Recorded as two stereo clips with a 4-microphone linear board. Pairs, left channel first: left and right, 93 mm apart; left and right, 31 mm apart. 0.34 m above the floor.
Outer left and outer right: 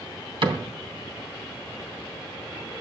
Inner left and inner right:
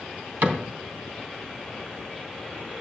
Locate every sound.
0.4 s a cupboard door: 65° right (ahead or behind), 2.5 m